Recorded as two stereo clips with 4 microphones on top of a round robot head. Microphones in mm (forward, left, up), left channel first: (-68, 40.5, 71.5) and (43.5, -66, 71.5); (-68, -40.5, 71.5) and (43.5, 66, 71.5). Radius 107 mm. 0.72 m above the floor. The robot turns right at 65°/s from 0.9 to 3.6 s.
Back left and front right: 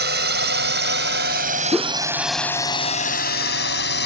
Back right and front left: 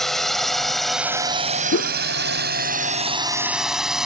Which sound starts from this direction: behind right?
A whoosh, at 1.7 s.